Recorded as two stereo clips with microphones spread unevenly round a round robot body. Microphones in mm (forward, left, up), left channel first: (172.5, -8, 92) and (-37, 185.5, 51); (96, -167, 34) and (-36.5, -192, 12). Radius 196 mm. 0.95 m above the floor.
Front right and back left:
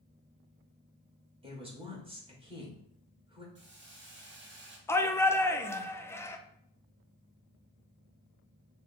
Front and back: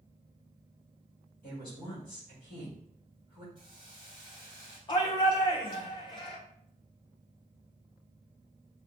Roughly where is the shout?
Ahead left.